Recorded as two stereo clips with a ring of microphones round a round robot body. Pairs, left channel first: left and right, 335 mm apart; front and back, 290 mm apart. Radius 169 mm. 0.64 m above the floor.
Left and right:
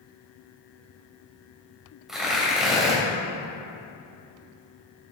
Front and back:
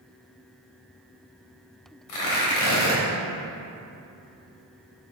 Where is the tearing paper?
Straight ahead, 3 m.